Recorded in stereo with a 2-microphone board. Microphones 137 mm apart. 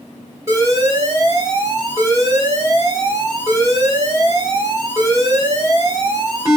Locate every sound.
0.5 s an alarm: 25° right (ahead or behind), 1.7 m